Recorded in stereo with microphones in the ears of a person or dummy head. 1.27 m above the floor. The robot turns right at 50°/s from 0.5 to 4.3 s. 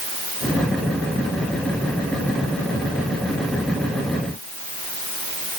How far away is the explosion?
No explosion in this recording.